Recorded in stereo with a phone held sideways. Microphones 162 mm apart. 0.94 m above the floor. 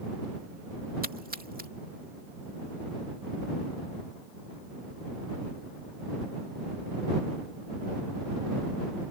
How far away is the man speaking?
No man speaking in this recording.